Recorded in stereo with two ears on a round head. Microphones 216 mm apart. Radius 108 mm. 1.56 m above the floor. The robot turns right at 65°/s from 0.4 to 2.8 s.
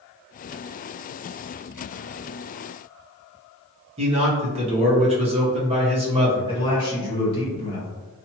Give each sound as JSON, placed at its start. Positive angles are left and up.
{"t": 4.0, "sound": "a man speaking", "side_deg": -25, "distance_m": 0.9}
{"t": 6.5, "sound": "a man speaking", "side_deg": 25, "distance_m": 1.8}